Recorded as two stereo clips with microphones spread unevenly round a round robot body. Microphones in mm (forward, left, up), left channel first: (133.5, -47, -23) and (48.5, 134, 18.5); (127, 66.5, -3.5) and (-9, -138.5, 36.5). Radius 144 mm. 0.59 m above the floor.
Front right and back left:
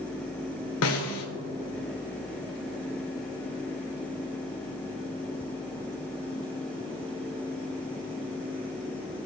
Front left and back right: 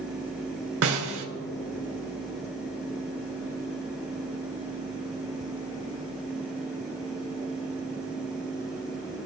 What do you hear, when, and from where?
0.8 s a snare drum: 95° right, 1.6 m